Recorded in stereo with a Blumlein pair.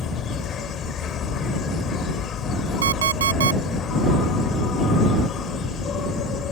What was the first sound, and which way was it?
An insect, 25° left.